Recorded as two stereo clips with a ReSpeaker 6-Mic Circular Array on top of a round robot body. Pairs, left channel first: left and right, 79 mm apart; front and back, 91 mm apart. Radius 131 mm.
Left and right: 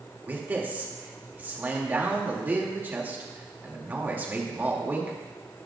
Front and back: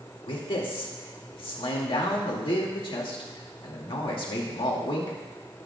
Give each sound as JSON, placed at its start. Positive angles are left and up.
{"t": 0.3, "sound": "a man speaking", "azimuth_deg": -25, "distance_m": 2.5}